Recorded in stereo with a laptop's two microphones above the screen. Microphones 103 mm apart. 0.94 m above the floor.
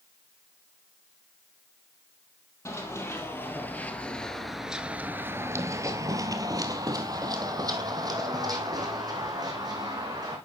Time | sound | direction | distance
2.6 | running footsteps | 25° left (ahead or behind) | 1.8 m